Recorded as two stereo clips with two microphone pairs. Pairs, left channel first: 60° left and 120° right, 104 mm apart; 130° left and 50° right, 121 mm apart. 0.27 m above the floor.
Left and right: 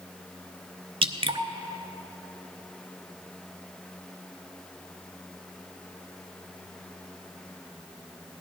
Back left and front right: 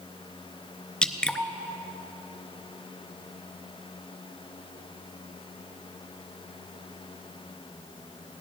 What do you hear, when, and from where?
1.0 s dripping: 150° right, 0.6 m